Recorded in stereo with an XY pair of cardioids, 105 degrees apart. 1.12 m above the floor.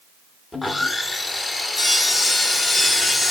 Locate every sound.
0.5 s sawing: 20° left, 0.8 m